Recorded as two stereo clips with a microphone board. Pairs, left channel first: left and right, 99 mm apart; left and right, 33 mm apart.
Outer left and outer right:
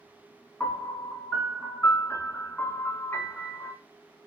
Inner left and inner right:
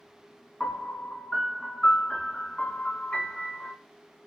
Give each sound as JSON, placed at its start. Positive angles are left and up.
{"t": 0.6, "sound": "a piano", "side_deg": 25, "distance_m": 1.6}